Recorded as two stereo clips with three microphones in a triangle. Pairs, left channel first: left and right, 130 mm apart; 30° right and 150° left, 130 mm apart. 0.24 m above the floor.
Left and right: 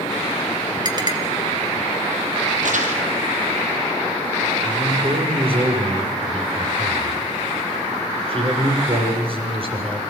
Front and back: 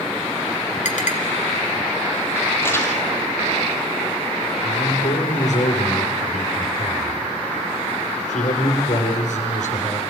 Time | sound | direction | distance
0.8 | a clink | 35° right | 1.9 m
2.6 | crumpling | 100° right | 4.5 m
4.6 | a man speaking | 45° right | 5.5 m